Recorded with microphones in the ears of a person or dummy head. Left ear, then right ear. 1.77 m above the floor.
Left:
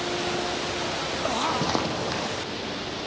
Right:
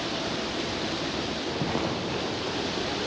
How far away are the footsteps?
About 5 m.